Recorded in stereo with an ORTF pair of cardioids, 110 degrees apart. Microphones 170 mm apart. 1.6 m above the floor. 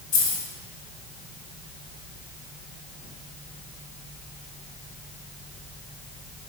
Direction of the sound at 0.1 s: 60° left.